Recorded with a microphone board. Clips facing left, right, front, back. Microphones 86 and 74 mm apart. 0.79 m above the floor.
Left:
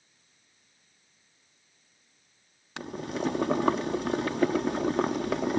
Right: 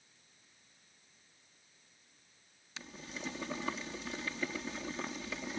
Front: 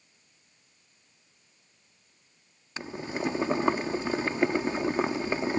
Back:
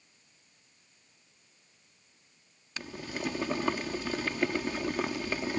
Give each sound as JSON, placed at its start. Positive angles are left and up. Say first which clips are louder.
{"t": 2.8, "sound": "boiling", "louder": "left 14 dB, front 5 dB", "azimuth_deg": 65}